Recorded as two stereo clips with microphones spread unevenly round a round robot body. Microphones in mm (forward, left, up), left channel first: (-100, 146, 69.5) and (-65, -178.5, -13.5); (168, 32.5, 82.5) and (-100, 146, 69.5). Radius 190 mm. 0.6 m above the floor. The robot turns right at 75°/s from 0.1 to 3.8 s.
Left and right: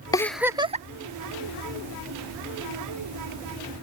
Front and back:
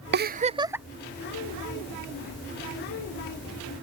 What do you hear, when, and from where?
0.1 s a giggle: 175° right; by 0.9 s 120° right